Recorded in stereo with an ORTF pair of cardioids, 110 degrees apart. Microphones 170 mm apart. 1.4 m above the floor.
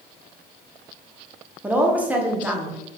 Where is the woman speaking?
10° right, 0.6 m.